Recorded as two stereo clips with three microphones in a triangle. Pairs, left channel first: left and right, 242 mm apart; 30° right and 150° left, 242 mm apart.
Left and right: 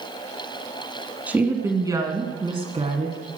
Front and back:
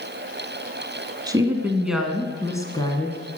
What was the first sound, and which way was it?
A woman speaking, 165° right.